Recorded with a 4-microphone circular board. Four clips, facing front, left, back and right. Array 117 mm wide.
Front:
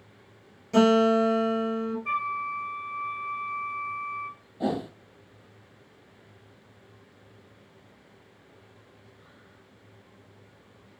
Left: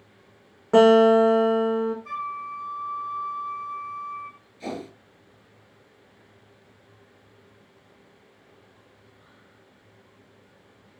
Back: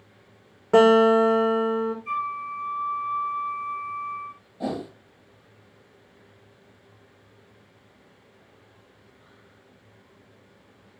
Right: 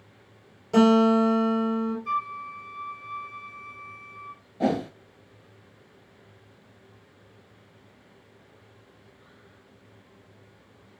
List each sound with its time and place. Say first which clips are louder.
0.7 s a guitar: left 4 dB, back 4 dB; 140° left, 6 m
2.0 s a flute: right 2 dB, even; 30° left, 1.4 m
4.6 s a whoosh: right 9 dB, front 1 dB; 90° right, 1.3 m